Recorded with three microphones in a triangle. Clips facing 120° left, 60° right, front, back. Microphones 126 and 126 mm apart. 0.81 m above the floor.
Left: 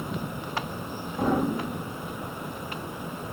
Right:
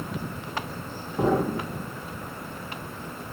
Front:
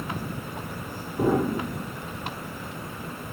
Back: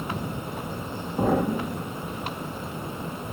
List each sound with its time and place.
1.2 s an explosion: 135° right, 6.5 m